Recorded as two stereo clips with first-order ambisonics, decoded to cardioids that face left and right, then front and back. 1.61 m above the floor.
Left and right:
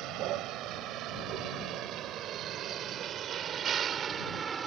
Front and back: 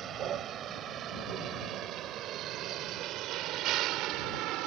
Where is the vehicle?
125° right; by 4.7 s 155° right.